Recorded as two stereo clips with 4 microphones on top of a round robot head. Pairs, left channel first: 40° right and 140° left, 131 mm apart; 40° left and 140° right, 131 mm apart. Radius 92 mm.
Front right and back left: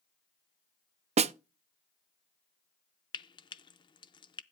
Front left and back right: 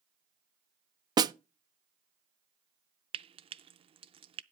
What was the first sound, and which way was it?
A snare drum, 165° left.